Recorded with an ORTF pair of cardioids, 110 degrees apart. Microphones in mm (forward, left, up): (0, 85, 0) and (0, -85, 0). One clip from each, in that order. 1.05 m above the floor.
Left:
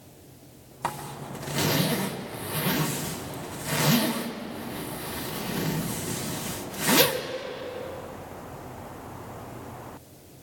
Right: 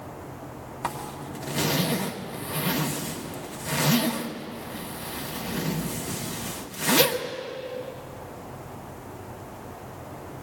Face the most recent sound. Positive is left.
turn(degrees=0)